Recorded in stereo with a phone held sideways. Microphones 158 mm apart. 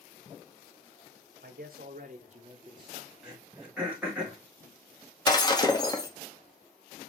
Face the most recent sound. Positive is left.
turn(degrees=25)  # may be behind; listen again after turning